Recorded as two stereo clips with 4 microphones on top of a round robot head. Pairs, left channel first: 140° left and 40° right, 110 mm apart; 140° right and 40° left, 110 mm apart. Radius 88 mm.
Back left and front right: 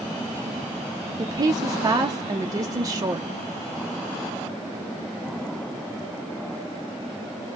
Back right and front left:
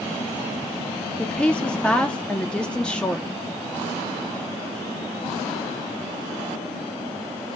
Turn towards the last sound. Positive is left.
turn(degrees=-70)